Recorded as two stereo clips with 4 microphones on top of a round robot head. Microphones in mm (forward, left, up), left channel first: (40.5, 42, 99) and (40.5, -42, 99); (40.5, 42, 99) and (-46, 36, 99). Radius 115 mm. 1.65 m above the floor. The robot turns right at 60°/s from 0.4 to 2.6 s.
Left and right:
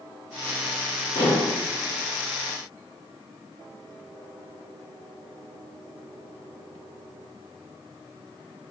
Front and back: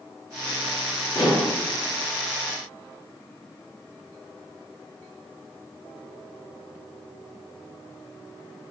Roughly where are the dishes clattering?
Ahead left.